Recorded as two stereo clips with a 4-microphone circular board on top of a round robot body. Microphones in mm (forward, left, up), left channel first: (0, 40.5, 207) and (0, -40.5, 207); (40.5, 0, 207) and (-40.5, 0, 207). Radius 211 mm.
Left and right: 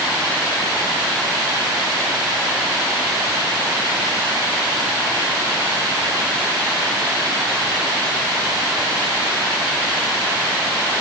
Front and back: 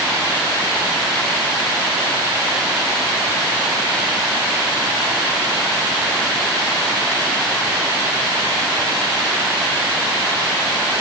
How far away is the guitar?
No guitar in this recording.